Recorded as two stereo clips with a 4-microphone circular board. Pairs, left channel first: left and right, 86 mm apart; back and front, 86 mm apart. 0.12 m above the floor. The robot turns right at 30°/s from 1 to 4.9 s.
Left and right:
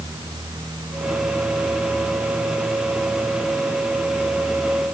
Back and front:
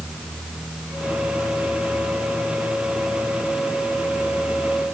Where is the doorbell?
I don't hear a doorbell.